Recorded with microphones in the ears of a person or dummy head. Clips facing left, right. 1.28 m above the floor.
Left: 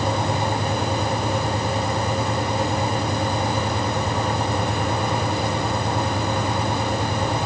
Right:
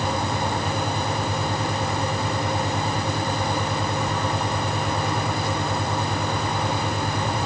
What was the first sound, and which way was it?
Only background noise.